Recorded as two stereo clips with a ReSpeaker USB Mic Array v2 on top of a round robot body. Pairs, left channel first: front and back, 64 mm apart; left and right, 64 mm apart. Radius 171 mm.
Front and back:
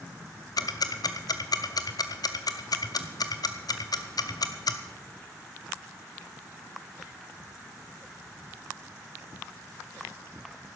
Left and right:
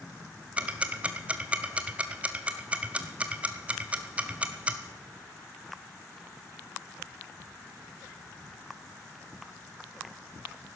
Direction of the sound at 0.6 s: 20° right.